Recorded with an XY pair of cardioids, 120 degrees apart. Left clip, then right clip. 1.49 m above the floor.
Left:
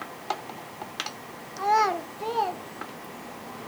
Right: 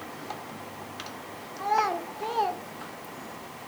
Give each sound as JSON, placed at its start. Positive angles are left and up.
{"t": 1.6, "sound": "a child speaking", "azimuth_deg": 35, "distance_m": 0.9}